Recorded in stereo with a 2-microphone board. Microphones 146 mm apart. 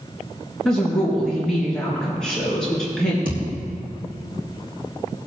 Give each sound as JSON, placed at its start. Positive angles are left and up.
{"t": 0.7, "sound": "a woman speaking", "side_deg": 5, "distance_m": 3.5}
{"t": 3.2, "sound": "a thud", "side_deg": -85, "distance_m": 4.5}